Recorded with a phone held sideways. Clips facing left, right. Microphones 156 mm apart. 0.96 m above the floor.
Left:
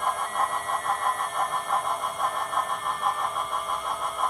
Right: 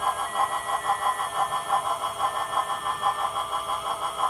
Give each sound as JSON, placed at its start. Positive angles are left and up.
{"t": 0.0, "sound": "a fan", "side_deg": -5, "distance_m": 3.0}